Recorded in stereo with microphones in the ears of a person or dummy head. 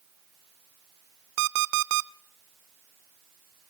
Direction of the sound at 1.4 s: 65° right (ahead or behind).